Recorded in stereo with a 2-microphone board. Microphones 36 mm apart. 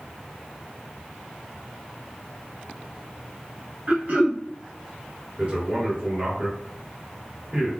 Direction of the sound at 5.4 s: 30° right (ahead or behind).